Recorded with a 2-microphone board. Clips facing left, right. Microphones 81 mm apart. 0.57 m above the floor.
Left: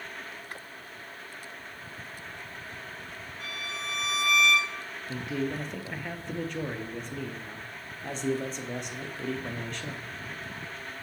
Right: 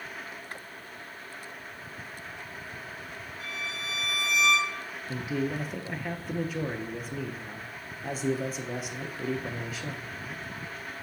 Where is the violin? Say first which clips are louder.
Even; 60° left (ahead or behind), 2 m.